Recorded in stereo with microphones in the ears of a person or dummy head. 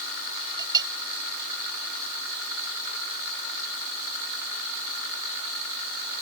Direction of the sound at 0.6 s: 25° right (ahead or behind).